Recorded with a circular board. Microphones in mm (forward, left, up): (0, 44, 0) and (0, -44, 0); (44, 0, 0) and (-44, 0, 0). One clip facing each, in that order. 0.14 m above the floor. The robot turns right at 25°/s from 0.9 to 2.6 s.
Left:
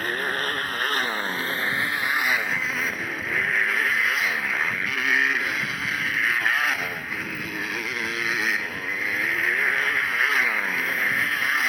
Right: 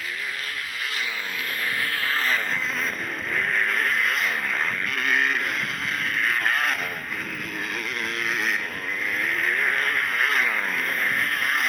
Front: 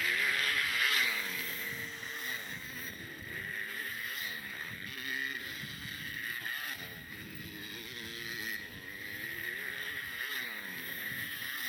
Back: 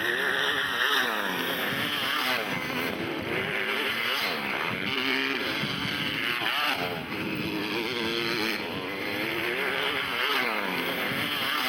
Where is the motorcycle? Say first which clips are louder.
Left 6 dB, back 6 dB; 135° left; by 11.7 s straight behind.